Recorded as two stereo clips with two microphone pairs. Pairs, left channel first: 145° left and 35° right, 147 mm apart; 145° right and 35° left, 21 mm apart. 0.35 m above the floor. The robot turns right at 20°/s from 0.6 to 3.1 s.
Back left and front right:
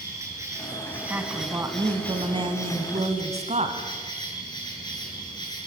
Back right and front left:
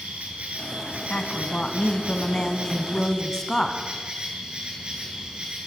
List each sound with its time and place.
0.0 s an insect: 30° left, 8 m; by 5.7 s 80° left, 8 m
1.1 s a woman speaking: 115° right, 3 m; by 3.8 s 75° right, 3 m